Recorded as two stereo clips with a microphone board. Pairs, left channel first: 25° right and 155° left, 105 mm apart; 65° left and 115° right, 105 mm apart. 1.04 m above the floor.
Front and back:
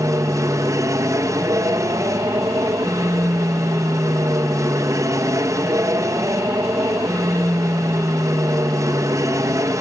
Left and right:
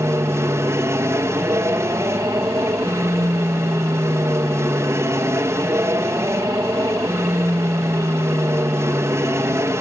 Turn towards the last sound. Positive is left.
turn(degrees=-160)